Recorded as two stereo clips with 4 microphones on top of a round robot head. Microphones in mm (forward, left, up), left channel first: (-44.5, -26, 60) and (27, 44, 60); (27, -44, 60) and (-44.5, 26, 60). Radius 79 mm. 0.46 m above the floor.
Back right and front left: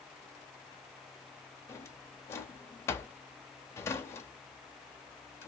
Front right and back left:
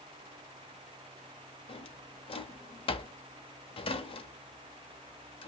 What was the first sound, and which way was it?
A drawer, 70° right.